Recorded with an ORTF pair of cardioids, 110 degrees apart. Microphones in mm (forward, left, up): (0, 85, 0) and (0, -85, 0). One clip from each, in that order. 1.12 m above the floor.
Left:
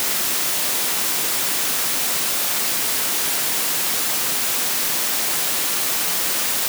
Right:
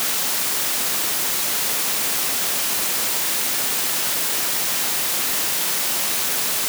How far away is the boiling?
No boiling in this recording.